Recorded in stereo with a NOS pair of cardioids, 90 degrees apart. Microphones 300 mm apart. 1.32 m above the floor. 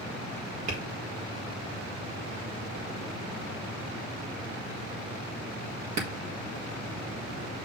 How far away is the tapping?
About 4 m.